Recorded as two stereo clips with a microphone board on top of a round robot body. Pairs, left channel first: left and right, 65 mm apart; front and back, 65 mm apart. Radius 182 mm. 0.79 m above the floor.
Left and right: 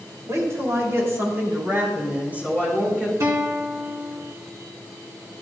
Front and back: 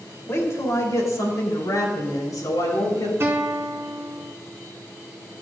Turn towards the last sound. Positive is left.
turn(degrees=-130)